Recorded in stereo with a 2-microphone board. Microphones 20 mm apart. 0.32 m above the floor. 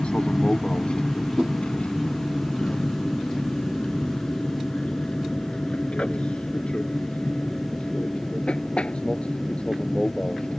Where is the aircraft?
60° left (ahead or behind); by 10.6 s 65° left (ahead or behind).